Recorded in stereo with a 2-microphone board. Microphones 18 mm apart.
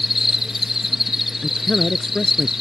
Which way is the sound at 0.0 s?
5° right (ahead or behind).